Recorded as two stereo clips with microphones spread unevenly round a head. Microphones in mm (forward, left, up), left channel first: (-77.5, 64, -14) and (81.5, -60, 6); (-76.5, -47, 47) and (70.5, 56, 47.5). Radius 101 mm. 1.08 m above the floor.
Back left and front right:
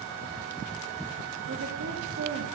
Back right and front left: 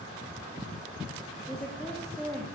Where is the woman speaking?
60° right, 2.5 m.